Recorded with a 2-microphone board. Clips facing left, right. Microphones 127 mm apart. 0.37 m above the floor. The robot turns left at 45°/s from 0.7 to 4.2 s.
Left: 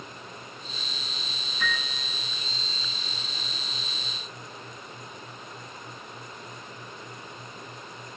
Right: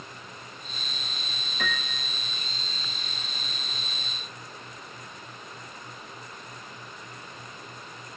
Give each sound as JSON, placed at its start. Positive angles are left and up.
{"t": 1.6, "sound": "a piano", "side_deg": -65, "distance_m": 3.5}